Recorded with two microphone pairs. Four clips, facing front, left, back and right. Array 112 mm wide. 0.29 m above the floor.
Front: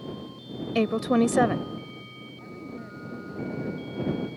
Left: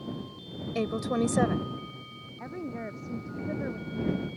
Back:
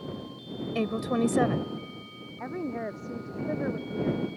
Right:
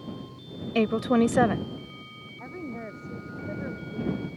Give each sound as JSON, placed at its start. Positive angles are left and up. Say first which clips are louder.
{"t": 0.8, "sound": "a woman speaking", "louder": "right 6 dB, front 5 dB", "azimuth_deg": -50}
{"t": 2.4, "sound": "a woman speaking", "louder": "left 1 dB, back 8 dB", "azimuth_deg": 180}